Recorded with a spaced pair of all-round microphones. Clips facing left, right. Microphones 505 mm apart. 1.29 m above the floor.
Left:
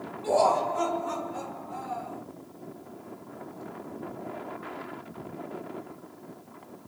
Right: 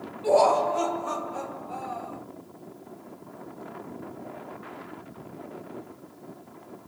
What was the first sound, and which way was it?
Laughter, 75° right (ahead or behind).